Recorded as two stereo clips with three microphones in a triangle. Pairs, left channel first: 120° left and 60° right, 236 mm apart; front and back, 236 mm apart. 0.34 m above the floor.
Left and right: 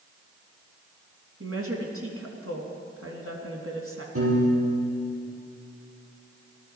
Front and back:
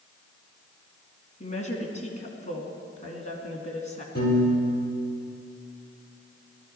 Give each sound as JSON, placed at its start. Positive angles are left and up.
{"t": 1.4, "sound": "a woman speaking", "azimuth_deg": -60, "distance_m": 3.0}
{"t": 4.2, "sound": "a piano", "azimuth_deg": -45, "distance_m": 5.5}